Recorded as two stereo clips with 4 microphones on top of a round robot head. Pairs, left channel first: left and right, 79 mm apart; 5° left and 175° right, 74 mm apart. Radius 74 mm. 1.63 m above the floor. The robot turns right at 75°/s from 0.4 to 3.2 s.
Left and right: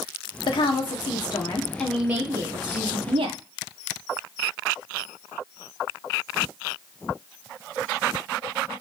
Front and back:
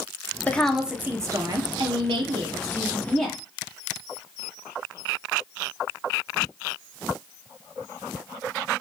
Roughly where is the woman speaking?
Left.